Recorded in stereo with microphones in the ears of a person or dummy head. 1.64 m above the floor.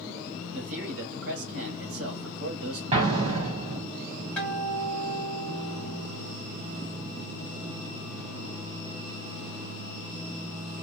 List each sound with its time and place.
0.5 s a man speaking: 85° right, 1.5 m
2.9 s an explosion: 30° right (ahead or behind), 1.1 m
4.4 s a guitar: 10° left (ahead or behind), 1.2 m